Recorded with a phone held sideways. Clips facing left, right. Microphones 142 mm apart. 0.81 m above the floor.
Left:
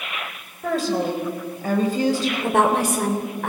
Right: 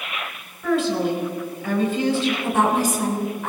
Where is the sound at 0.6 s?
35° left (ahead or behind), 4.5 m.